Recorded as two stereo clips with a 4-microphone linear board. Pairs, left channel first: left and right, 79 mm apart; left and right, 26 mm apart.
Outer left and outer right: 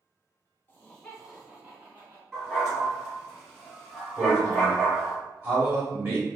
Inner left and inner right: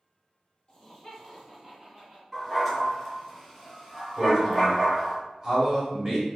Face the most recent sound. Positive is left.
turn(degrees=-30)  # may be behind; listen again after turning